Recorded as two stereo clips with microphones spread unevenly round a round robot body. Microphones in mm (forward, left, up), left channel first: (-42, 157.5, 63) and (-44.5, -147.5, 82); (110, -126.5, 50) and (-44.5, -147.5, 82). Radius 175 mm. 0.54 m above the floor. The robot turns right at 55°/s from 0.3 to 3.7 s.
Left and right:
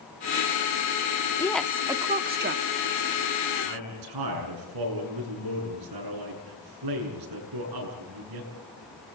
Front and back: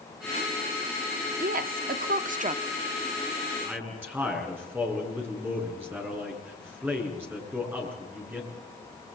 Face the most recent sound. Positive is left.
turn(degrees=-95)